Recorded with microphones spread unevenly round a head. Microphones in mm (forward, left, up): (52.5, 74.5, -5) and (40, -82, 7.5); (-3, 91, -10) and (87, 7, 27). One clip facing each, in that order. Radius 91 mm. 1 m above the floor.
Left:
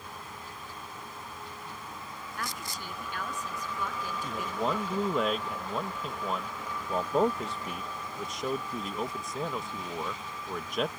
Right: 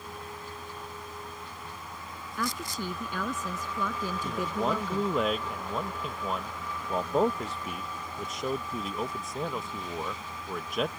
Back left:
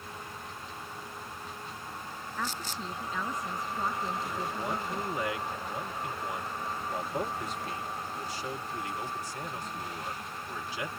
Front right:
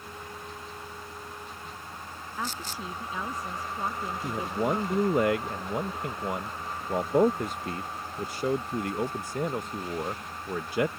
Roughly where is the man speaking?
Ahead.